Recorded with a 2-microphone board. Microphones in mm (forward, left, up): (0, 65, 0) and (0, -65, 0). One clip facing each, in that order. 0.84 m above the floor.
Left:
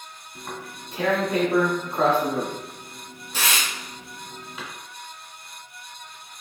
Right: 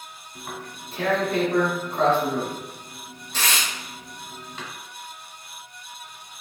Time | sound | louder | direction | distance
0.3 | tearing paper | even | 10° left (ahead or behind) | 1.8 m